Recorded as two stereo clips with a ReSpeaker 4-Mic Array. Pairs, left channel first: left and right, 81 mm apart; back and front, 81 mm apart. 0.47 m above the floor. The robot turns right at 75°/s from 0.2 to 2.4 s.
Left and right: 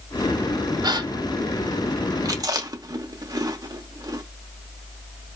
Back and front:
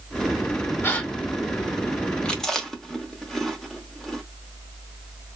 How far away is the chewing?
About 0.6 m.